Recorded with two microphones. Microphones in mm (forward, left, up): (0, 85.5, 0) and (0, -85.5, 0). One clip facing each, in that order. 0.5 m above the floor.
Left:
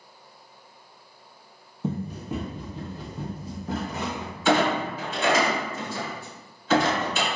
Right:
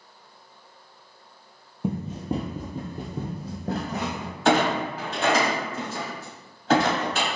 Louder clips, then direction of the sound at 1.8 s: Right 2 dB; 10° right (ahead or behind).